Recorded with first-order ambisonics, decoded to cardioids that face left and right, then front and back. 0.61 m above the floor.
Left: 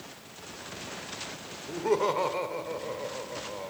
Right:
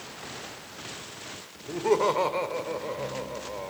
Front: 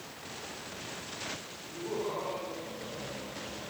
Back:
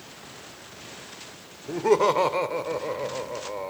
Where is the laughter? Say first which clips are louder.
Right 3 dB, back 15 dB; 175° right, 1.7 m.